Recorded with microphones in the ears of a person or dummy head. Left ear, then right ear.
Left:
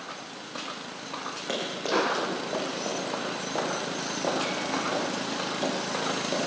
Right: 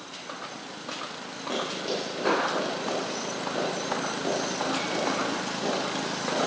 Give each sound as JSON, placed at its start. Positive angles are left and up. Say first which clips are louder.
{"t": 1.5, "sound": "running footsteps", "louder": "left 2 dB", "side_deg": 55, "distance_m": 6.0}